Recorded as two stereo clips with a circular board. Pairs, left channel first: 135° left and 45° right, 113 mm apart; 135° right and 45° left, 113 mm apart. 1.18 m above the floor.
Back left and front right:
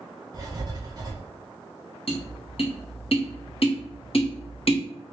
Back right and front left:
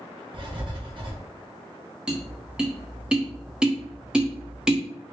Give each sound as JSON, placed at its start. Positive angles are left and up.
{"t": 0.3, "sound": "writing", "azimuth_deg": 5, "distance_m": 1.1}
{"t": 2.1, "sound": "tapping", "azimuth_deg": 125, "distance_m": 0.9}